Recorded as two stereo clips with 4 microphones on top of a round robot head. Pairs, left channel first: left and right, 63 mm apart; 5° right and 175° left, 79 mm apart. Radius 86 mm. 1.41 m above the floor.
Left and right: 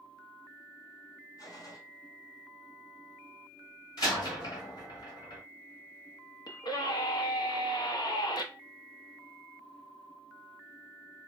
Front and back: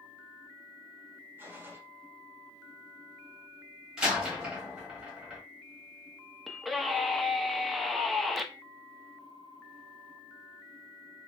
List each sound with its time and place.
1.4 s a gunshot: 110° left, 0.9 m
4.0 s a door slam: 90° left, 1.3 m
6.5 s a scream: 85° left, 0.7 m